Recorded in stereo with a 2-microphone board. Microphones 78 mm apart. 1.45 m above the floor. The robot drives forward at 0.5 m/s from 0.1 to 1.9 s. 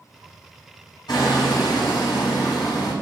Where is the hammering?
75° left (ahead or behind), 5 m; by 2.9 s 80° left, 5 m.